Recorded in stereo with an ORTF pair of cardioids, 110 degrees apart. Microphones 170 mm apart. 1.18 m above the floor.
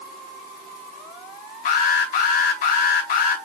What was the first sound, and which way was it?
An alarm, 60° left.